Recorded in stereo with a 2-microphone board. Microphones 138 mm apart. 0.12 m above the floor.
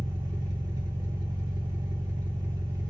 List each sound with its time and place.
0.0 s an engine running: 30° right (ahead or behind), 1.0 m